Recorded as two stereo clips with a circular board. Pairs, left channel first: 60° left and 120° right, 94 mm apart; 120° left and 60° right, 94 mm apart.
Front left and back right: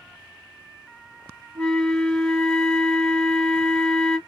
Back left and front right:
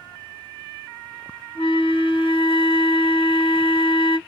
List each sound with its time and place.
1.6 s a flute: 140° left, 0.9 m